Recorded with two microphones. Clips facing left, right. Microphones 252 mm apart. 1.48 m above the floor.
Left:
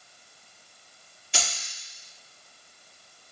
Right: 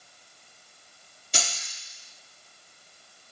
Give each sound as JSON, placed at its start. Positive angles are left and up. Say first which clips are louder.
{"t": 1.3, "sound": "keys jangling", "louder": "even", "side_deg": -45, "distance_m": 1.5}